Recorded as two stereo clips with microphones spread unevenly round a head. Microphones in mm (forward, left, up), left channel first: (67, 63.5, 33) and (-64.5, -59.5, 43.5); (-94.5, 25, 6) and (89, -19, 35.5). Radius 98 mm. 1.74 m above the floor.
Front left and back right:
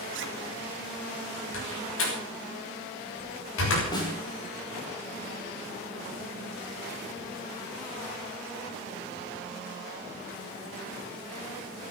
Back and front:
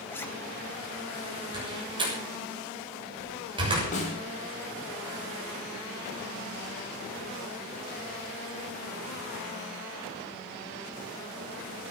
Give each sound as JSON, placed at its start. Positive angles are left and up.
{"t": 0.1, "sound": "a zipper", "azimuth_deg": -110, "distance_m": 1.7}
{"t": 1.5, "sound": "a door slam", "azimuth_deg": 55, "distance_m": 7.0}
{"t": 3.9, "sound": "a snare drum", "azimuth_deg": 115, "distance_m": 6.0}